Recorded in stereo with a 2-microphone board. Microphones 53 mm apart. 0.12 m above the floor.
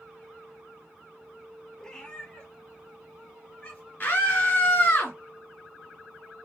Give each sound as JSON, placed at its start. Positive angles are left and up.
{"t": 1.8, "sound": "a cat meowing", "side_deg": 10, "distance_m": 1.0}
{"t": 4.0, "sound": "a scream", "side_deg": 35, "distance_m": 2.0}